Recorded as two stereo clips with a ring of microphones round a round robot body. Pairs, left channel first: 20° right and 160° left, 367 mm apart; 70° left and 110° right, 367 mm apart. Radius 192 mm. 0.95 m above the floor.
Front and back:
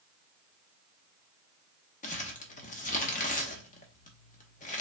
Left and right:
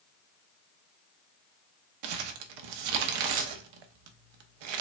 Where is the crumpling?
95° right, 0.7 m.